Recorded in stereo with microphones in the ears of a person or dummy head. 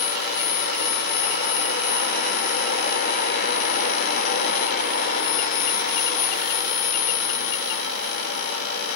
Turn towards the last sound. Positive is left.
turn(degrees=55)  # may be behind; listen again after turning